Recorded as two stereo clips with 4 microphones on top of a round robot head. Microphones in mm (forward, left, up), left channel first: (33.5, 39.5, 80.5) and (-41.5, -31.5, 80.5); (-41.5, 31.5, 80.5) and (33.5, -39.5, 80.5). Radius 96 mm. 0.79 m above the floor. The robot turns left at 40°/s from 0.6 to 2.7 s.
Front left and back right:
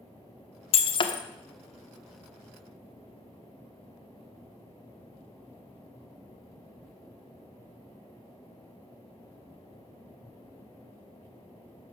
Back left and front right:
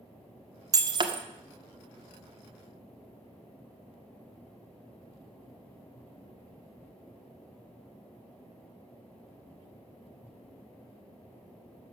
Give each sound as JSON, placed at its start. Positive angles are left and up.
{"t": 0.7, "sound": "breaking glass", "azimuth_deg": 10, "distance_m": 1.3}